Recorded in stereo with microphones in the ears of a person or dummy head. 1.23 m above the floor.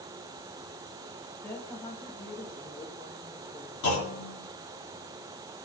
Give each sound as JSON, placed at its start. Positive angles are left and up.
{"t": 1.4, "sound": "a woman speaking", "side_deg": 20, "distance_m": 2.0}
{"t": 3.8, "sound": "a clunk", "side_deg": 60, "distance_m": 2.5}